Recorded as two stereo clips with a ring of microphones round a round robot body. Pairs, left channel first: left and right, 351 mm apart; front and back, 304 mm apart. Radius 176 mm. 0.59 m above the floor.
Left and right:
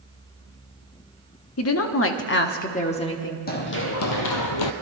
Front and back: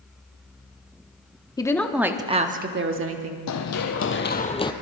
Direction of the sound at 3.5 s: 25° left.